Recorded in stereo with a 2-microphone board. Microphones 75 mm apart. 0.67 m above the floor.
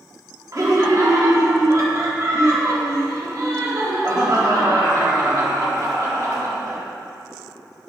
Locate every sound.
0.5 s laughter: 45° right (ahead or behind), 1.6 m